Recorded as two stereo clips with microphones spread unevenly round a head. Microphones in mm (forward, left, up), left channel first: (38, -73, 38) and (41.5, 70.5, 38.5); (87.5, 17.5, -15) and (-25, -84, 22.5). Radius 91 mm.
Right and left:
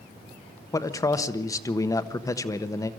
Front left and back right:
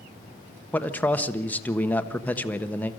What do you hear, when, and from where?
0.7 s a man speaking: 25° right, 1.3 m